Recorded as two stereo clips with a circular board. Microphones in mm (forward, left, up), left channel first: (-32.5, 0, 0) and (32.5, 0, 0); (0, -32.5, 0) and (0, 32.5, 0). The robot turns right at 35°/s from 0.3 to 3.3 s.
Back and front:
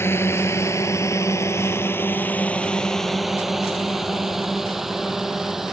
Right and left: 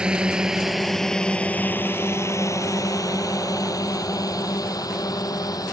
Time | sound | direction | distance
0.0 | a drone | 160° left | ?